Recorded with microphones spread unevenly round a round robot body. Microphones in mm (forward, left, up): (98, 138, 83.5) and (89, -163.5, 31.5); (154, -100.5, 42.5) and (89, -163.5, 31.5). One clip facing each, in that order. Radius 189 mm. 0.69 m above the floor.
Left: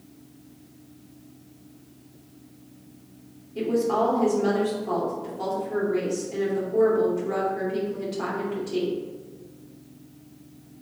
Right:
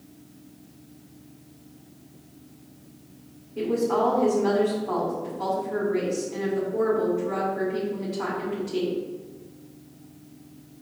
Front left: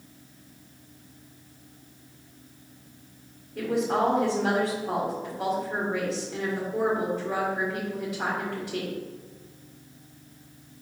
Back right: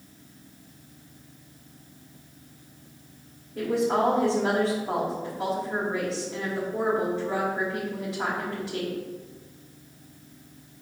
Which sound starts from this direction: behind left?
A woman speaking, at 3.5 s.